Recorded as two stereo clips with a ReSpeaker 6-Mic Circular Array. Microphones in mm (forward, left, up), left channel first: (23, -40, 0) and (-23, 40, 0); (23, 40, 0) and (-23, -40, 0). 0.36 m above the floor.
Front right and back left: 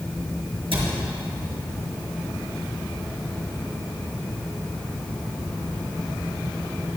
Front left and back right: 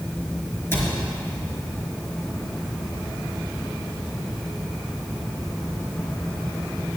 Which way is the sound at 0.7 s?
125° left.